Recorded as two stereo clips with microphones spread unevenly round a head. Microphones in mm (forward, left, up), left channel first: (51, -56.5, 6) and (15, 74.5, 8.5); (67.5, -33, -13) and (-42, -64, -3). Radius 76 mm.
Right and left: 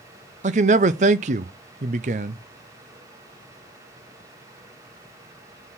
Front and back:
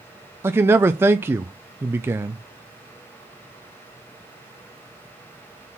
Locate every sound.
0.4 s a man speaking: 130° left, 0.6 m